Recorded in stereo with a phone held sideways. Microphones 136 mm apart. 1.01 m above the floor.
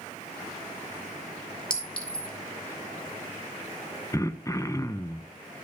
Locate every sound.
1.7 s a clink: 5° left (ahead or behind), 2 m
4.1 s throat clearing: 20° left (ahead or behind), 0.6 m